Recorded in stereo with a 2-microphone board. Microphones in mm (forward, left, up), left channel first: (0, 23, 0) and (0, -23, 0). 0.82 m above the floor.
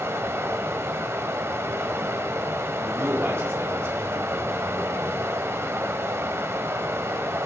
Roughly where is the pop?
I don't hear a pop.